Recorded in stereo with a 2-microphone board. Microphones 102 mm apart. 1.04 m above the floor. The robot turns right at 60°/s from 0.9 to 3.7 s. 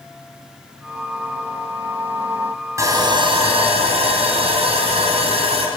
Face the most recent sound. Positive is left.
turn(degrees=-95)